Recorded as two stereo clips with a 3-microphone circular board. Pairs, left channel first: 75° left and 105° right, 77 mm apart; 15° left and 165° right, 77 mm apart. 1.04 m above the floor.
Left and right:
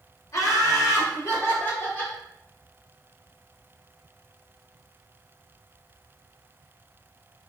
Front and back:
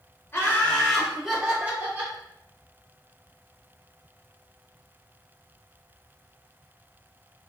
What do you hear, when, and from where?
0.3 s laughter: 60° left, 1.0 m; by 2.1 s 135° left, 1.6 m